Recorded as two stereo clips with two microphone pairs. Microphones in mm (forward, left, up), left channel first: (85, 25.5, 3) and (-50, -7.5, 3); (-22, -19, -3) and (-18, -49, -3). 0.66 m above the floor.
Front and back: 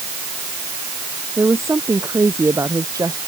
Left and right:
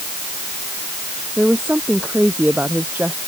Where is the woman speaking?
95° right; by 3.2 s 100° right.